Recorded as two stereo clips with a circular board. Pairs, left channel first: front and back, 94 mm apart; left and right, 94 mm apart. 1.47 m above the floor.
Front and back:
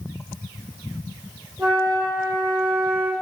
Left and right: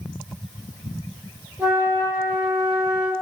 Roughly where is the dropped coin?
I don't hear a dropped coin.